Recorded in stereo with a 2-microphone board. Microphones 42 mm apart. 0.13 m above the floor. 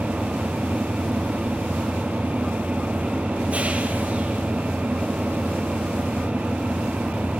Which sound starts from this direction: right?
An engine running, at 0.0 s.